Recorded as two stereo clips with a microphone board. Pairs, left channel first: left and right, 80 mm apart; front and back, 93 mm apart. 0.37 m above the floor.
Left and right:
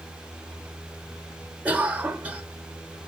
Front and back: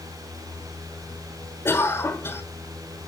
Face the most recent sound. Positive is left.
turn(degrees=-35)